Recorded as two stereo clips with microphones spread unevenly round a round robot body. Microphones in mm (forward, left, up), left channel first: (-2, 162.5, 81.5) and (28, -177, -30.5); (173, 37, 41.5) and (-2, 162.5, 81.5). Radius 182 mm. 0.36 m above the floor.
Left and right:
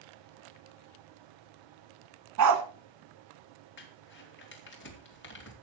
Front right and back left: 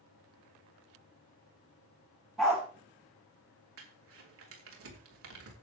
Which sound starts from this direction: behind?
Crumpling, at 3.8 s.